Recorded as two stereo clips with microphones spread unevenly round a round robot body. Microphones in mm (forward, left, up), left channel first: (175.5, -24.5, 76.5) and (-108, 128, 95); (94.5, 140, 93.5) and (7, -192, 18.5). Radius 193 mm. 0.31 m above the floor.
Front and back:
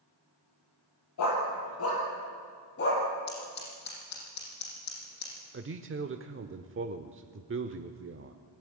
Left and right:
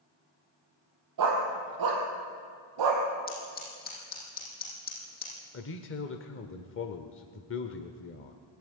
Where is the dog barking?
75° right, 4 m; by 3.0 s 90° right, 4 m.